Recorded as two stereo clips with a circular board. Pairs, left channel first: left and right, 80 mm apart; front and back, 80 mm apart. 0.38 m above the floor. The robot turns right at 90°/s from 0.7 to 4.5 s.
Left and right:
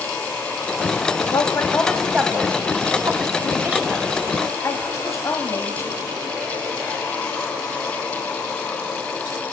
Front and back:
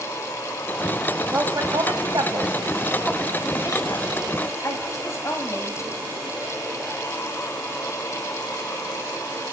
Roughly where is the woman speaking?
Behind left.